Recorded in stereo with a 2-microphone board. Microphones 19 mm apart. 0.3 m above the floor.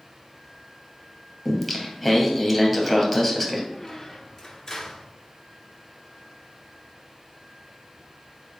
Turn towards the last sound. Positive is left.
turn(degrees=35)  # may be behind; listen again after turning